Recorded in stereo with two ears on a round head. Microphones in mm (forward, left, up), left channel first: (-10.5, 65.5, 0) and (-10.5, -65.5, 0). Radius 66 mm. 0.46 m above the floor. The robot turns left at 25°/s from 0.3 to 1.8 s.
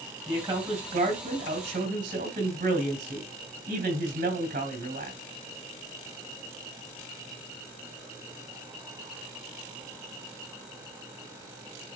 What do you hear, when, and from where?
0.3 s a man speaking: 30° right, 3 m; by 5.2 s 65° right, 3 m